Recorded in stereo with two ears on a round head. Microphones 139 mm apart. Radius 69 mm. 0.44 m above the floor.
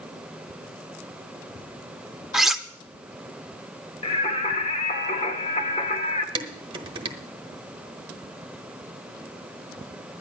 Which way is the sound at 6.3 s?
30° right (ahead or behind).